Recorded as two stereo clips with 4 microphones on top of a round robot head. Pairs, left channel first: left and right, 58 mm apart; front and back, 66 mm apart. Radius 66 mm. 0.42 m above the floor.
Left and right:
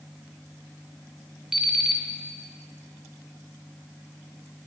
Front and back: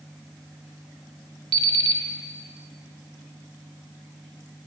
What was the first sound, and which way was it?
An alarm clock, 170° right.